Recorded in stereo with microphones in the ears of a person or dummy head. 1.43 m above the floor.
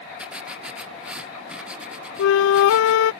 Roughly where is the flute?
Left.